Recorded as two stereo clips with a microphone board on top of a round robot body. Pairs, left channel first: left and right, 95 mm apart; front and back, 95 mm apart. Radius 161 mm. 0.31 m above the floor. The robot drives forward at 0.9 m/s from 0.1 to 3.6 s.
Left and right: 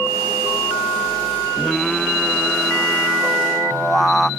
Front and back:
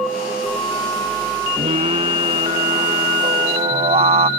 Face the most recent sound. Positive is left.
turn(degrees=175)